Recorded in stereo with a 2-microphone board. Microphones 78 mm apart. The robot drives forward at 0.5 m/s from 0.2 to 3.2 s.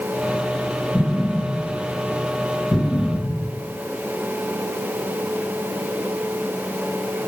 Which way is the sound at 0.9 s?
10° left (ahead or behind).